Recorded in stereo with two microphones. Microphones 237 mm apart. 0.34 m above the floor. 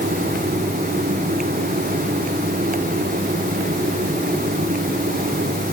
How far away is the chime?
No chime in this recording.